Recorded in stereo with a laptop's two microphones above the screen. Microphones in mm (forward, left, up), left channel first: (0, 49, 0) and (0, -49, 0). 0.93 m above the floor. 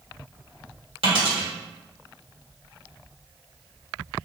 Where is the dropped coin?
70° right (ahead or behind), 1.7 m.